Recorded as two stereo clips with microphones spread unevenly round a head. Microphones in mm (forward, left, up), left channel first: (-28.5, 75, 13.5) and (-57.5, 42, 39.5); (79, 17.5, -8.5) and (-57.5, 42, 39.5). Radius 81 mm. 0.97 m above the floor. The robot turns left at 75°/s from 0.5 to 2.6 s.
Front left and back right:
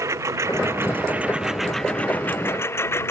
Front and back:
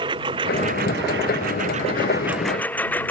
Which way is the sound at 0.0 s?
130° right.